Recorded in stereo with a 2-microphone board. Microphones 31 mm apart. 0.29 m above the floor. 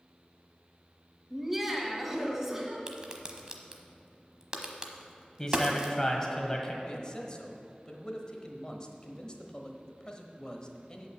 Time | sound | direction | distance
1.3 | laughter | 10° right (ahead or behind) | 1.1 m
2.9 | a crack | 25° right (ahead or behind) | 1.0 m
5.4 | a man speaking | 20° left (ahead or behind) | 1.4 m
6.8 | a man speaking | 30° left (ahead or behind) | 1.0 m